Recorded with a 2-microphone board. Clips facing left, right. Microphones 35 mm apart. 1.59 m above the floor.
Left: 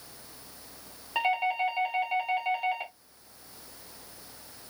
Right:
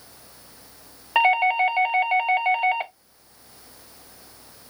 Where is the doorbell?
50° right (ahead or behind), 0.8 m.